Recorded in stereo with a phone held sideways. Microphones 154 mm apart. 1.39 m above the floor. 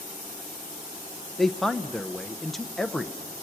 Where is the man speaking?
Centre (ahead or behind), 0.7 m.